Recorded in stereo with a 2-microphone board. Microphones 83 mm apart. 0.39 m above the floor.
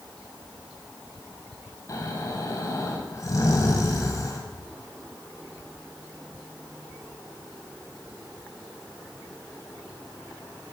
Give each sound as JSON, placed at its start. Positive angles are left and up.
{"t": 1.9, "sound": "snoring", "side_deg": 45, "distance_m": 2.0}